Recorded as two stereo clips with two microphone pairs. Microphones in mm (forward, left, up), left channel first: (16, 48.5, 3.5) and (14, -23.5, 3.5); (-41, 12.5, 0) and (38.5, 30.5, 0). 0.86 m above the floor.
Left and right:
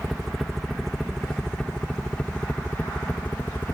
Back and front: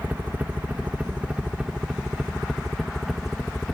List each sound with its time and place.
0.0 s a helicopter: 5° right; by 3.8 s 105° left